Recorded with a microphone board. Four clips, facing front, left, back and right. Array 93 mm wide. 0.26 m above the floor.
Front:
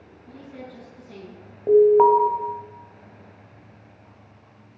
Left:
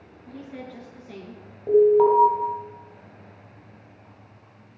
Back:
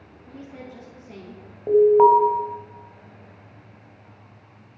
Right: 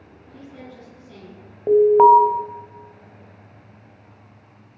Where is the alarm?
80° right, 1.3 m.